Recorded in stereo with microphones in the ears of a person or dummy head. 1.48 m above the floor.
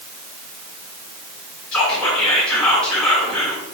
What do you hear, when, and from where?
1.7 s whispering: centre (ahead or behind), 1.0 m